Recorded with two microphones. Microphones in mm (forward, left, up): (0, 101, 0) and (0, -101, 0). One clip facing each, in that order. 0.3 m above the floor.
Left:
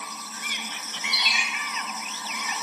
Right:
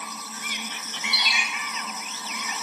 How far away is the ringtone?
About 2 m.